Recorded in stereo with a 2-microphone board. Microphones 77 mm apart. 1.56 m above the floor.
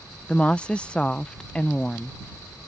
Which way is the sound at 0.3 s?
15° left (ahead or behind).